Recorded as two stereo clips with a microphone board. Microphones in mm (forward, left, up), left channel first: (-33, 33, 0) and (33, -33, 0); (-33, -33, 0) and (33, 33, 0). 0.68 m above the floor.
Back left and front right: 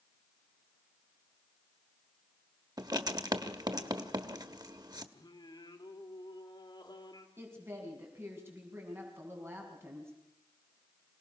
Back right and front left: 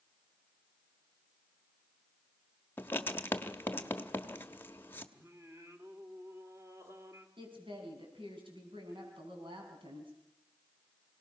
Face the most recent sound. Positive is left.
turn(degrees=20)